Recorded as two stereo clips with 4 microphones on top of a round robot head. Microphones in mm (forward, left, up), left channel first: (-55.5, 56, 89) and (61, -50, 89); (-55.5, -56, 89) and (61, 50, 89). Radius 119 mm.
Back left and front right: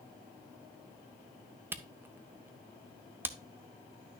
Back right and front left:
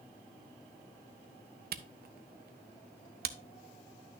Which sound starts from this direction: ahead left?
A camera shutter, at 1.7 s.